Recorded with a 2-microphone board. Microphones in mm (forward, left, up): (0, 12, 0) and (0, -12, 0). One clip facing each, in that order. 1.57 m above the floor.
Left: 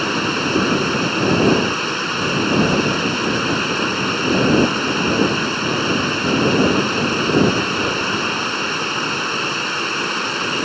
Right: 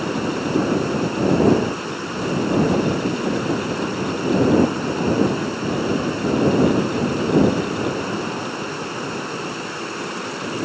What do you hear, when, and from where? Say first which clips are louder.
0.0 s running water: left 4 dB; 65° left (ahead or behind)